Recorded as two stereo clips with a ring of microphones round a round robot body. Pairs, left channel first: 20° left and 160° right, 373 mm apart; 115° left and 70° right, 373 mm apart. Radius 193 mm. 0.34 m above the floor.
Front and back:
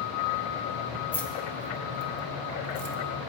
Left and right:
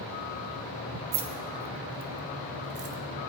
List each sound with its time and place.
1.1 s keys jangling: 65° right, 1.6 m; by 3.0 s 15° right, 1.4 m